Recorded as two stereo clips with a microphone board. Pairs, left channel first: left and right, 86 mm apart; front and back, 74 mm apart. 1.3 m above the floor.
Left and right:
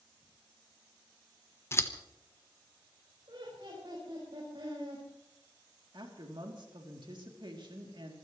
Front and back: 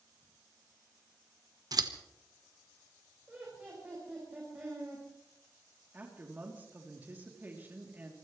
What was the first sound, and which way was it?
Scissors, 150° left.